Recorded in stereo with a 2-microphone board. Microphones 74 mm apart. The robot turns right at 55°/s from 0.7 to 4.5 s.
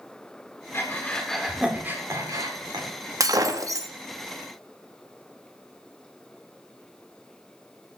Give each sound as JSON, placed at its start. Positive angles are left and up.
{"t": 0.7, "sound": "breathing", "side_deg": 35, "distance_m": 2.0}
{"t": 3.2, "sound": "breaking glass", "azimuth_deg": -100, "distance_m": 0.9}